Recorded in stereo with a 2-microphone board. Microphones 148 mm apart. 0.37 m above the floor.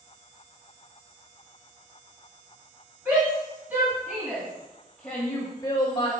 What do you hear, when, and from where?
3.0 s a shout: 15° right (ahead or behind), 4 m; by 6.1 s 40° left (ahead or behind), 1.4 m